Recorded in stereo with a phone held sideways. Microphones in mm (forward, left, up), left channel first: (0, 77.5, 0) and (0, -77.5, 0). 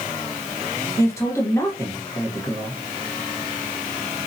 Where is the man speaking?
20° left (ahead or behind), 1.1 m.